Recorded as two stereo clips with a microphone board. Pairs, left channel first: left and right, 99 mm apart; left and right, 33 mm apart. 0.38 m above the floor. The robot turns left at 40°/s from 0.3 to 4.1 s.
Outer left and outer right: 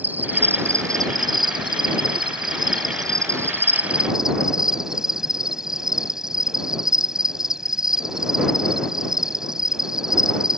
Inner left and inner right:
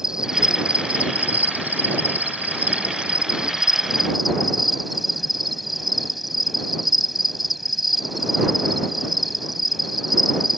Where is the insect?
20° right; by 10.6 s 175° right.